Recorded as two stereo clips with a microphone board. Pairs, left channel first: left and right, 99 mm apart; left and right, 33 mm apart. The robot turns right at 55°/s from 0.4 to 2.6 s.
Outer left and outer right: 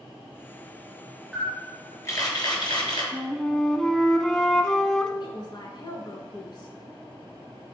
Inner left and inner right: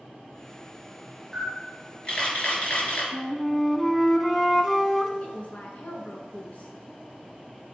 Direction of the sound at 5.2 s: 50° left (ahead or behind).